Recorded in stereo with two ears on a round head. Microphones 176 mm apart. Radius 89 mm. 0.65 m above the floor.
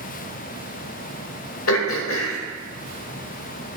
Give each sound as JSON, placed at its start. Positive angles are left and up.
{"t": 1.7, "sound": "throat clearing", "side_deg": 80, "distance_m": 1.5}